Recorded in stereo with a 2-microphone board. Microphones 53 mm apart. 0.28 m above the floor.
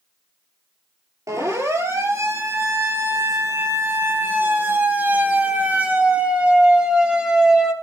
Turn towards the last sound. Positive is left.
turn(degrees=-10)  # may be behind; listen again after turning